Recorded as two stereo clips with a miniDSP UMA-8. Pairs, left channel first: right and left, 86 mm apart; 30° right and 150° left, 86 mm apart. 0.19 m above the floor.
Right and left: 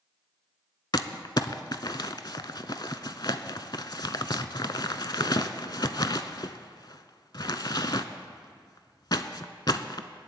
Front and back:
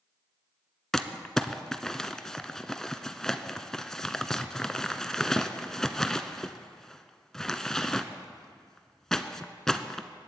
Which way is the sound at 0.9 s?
115° right.